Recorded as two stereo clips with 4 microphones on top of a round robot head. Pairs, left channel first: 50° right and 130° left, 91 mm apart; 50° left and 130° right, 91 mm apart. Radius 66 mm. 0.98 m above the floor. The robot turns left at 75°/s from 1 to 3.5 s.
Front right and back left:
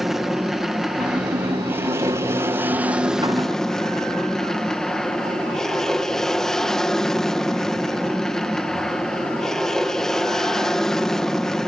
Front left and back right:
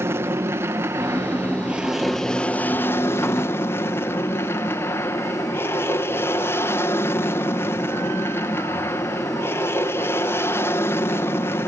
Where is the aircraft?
140° right; by 11.7 s 30° left.